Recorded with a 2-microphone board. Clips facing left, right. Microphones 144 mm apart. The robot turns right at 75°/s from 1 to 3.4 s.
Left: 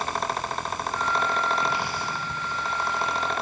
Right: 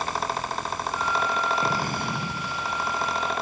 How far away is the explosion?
About 3.5 m.